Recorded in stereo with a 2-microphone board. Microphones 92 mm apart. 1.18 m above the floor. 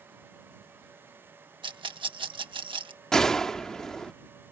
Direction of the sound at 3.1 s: 5° left (ahead or behind).